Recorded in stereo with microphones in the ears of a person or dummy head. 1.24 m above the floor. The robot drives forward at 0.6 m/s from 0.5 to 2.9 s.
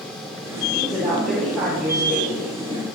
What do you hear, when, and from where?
0.7 s a woman speaking: centre (ahead or behind), 5 m